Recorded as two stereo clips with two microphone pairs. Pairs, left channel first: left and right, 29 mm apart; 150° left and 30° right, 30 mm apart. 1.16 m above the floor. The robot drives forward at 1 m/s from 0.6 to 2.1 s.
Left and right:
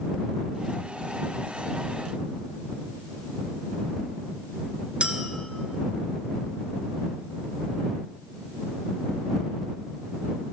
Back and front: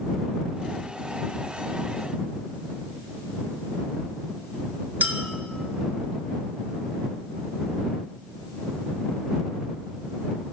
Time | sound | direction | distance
5.0 | a clink | 45° right | 1.1 m